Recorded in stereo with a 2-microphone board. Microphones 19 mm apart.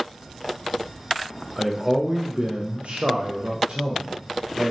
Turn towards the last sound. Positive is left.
turn(degrees=-60)  # may be behind; listen again after turning